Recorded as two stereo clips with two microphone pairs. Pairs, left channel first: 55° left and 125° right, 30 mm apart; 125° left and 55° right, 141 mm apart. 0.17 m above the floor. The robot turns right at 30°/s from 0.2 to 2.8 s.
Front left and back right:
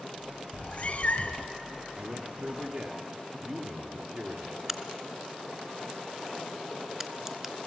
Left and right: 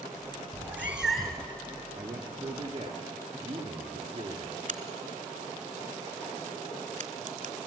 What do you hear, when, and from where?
0.5 s a cat meowing: 15° left, 1.4 m; by 1.5 s 45° left, 1.4 m
1.9 s a man speaking: 130° right, 2.5 m; by 4.6 s 105° right, 2.5 m
4.7 s a crack: 55° right, 1.1 m